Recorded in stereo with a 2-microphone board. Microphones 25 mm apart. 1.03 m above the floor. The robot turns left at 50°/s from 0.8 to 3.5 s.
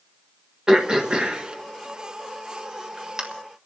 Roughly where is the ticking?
I don't hear ticking.